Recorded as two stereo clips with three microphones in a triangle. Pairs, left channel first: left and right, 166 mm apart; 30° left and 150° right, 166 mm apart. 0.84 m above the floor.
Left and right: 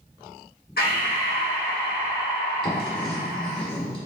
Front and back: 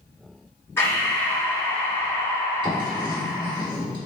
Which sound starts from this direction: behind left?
Writing, at 2.6 s.